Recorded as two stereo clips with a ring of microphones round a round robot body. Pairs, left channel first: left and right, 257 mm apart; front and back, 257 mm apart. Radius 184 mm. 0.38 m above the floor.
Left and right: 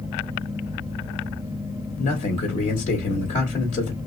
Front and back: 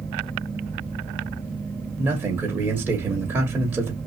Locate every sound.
2.0 s a man speaking: 105° left, 1.4 m